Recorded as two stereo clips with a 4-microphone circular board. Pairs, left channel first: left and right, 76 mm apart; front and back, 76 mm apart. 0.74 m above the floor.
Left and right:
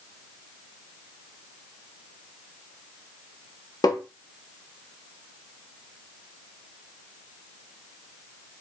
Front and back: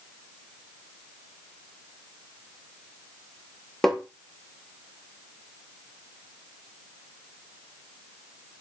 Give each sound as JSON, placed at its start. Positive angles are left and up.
{"t": 3.8, "sound": "tapping", "azimuth_deg": 85, "distance_m": 0.7}